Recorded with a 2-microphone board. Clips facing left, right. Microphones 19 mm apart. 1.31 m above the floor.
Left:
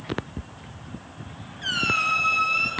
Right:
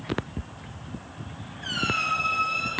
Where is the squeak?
80° left, 2.5 m.